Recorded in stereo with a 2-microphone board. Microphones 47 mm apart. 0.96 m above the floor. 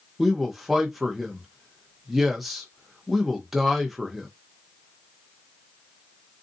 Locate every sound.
0.2 s a man speaking: 5° right (ahead or behind), 0.7 m